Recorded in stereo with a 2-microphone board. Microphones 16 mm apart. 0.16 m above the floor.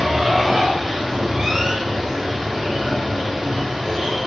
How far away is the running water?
About 5.5 m.